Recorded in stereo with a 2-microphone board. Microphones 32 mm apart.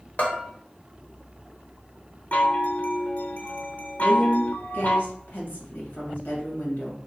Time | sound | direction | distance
0.2 | a bell | 50° left (ahead or behind) | 0.9 m
2.3 | a chime | 50° left (ahead or behind) | 0.5 m
4.0 | a woman speaking | 65° left (ahead or behind) | 1.9 m